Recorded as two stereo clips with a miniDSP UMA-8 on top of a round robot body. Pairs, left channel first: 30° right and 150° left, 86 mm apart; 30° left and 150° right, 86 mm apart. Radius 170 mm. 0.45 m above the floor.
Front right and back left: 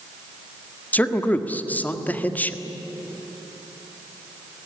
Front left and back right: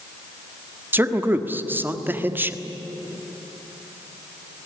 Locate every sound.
0.9 s a man speaking: 95° right, 1.8 m